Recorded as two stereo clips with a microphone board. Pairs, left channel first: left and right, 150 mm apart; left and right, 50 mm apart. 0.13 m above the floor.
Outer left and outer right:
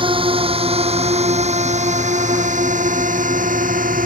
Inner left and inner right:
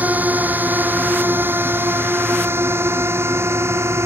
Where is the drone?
35° right (ahead or behind); by 4.1 s 65° right (ahead or behind).